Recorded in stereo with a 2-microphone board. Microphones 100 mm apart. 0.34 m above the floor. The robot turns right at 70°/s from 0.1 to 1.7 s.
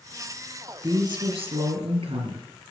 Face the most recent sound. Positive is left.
turn(degrees=-85)